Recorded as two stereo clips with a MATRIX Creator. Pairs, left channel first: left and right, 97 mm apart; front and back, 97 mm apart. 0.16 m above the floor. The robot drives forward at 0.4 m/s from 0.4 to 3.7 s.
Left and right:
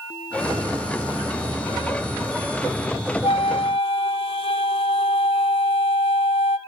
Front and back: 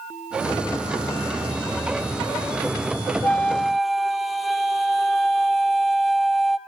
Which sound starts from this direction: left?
A flute, at 3.2 s.